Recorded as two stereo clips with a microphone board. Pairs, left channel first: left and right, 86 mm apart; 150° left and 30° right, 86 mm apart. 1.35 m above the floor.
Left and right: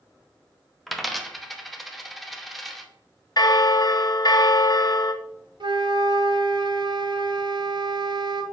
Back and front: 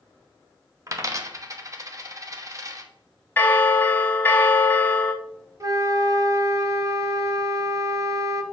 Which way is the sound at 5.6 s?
75° right.